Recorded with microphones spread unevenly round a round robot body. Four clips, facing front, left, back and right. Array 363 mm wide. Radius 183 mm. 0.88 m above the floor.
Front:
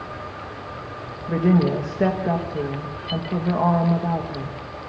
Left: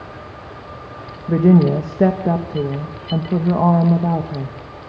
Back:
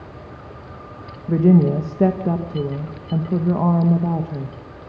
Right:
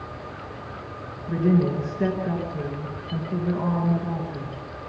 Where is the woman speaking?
120° left, 1.1 m.